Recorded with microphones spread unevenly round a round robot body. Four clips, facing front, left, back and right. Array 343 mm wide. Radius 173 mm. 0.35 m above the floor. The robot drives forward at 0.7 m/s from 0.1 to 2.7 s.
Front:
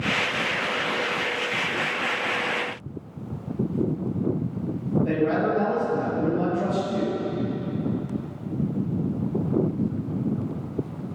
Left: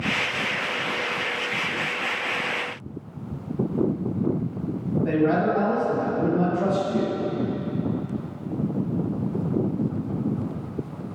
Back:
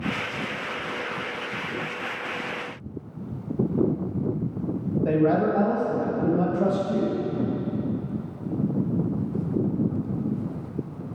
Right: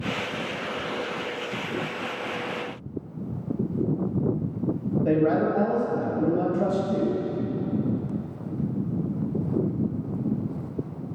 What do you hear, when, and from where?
5.0 s a man speaking: 145° right, 2 m